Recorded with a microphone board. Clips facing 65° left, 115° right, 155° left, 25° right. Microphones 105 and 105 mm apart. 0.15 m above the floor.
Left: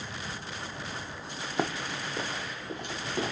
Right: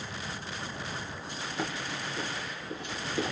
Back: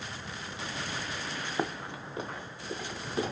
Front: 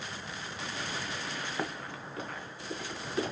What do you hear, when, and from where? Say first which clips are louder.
1.6 s running footsteps: left 4 dB, back 6 dB; 85° left, 0.6 m